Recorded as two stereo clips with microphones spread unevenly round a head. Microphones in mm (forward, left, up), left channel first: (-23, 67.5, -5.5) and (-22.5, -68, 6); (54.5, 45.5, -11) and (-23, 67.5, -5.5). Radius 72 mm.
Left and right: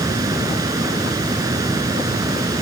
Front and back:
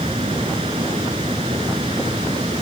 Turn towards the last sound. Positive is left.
turn(degrees=-155)